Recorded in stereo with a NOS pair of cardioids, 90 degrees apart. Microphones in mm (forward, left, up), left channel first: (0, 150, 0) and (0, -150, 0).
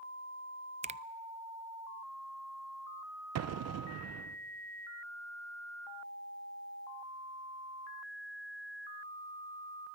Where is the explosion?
65° right, 1.0 m.